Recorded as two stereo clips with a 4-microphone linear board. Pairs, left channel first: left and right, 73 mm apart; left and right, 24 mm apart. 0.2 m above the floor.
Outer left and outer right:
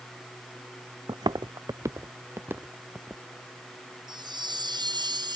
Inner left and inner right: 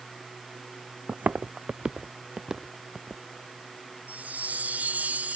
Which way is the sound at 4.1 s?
80° right.